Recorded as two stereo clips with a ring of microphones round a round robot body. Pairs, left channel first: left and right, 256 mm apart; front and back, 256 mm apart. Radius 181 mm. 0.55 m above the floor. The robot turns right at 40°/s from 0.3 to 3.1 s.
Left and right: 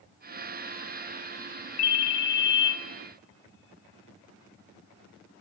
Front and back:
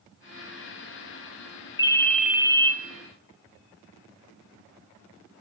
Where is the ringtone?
75° left, 1.3 m; by 2.7 s 110° left, 1.3 m.